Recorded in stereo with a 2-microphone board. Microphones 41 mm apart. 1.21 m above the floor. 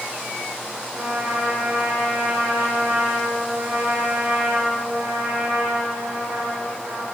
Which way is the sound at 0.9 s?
80° right.